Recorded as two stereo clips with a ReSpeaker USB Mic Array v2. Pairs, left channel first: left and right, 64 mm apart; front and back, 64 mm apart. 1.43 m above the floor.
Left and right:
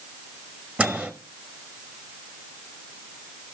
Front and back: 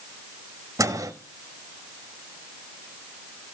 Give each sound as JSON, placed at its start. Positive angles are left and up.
{"t": 0.8, "sound": "a microwave", "azimuth_deg": -155, "distance_m": 1.4}